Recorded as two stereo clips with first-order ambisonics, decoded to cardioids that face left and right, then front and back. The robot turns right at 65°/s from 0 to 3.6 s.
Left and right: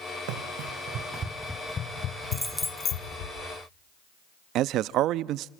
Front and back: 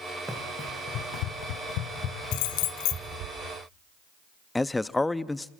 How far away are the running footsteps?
About 3.5 m.